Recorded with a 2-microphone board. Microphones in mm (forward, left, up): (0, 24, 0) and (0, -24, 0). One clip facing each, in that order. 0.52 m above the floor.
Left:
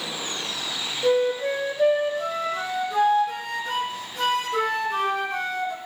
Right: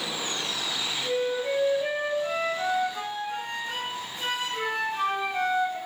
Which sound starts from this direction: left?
A flute, at 1.0 s.